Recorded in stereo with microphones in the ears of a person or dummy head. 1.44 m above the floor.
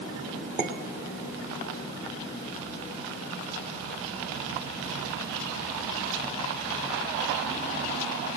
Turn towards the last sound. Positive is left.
turn(degrees=-10)  # may be behind; listen again after turning